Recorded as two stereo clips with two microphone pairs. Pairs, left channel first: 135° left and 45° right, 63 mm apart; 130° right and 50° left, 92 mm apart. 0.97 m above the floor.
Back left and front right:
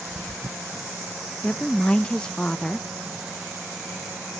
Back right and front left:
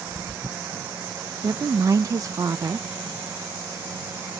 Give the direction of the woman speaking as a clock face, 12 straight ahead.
10 o'clock.